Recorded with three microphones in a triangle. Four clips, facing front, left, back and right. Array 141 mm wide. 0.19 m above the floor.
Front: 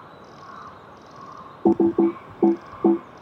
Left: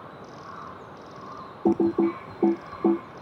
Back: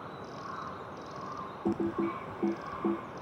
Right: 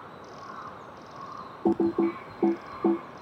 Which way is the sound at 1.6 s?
10° left.